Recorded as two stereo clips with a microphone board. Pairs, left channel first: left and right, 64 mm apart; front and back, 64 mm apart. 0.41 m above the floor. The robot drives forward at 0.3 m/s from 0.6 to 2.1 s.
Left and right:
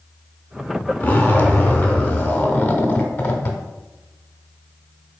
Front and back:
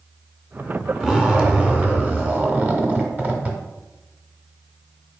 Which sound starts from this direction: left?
A zipper, at 1.0 s.